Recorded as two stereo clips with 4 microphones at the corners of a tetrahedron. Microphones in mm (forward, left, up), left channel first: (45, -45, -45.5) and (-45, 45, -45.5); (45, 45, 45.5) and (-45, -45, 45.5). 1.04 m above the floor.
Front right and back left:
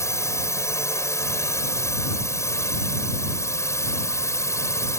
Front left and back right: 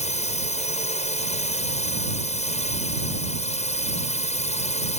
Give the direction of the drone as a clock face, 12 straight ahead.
11 o'clock.